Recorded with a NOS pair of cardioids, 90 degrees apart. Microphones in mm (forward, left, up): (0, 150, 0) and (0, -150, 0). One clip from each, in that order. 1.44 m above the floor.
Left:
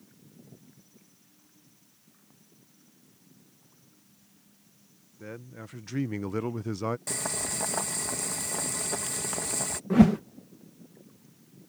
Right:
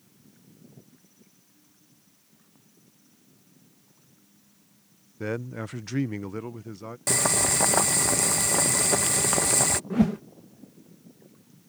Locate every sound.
5.2 s a man speaking: 55° right; by 7.0 s 45° left
7.1 s boiling: 50° right
9.9 s a whoosh: 30° left